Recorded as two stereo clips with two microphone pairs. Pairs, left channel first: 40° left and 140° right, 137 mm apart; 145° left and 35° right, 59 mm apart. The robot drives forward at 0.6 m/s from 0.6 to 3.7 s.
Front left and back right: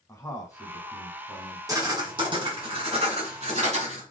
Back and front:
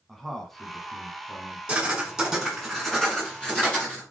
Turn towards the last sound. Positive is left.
turn(degrees=-140)